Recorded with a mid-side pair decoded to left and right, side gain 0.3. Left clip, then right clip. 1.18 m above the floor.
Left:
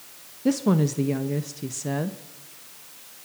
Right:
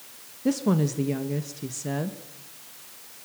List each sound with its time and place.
0.5 s a woman speaking: 20° left, 1.3 m